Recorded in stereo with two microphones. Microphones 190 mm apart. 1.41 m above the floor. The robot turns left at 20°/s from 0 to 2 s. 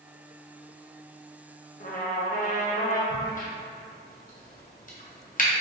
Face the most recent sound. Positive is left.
turn(degrees=45)  # may be behind; listen again after turning